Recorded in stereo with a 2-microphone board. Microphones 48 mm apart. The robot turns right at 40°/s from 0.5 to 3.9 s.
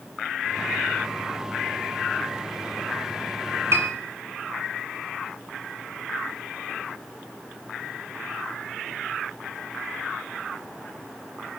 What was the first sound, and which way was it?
A piano, 70° right (ahead or behind).